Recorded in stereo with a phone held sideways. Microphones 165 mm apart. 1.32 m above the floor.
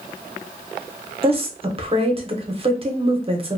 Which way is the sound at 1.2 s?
35° right (ahead or behind).